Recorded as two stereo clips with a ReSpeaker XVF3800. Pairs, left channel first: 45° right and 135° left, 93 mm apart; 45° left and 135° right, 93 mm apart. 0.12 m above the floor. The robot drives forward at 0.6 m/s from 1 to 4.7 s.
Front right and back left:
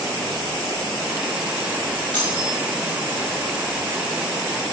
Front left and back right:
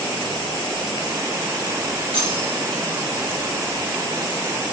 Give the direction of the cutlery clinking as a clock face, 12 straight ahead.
4 o'clock.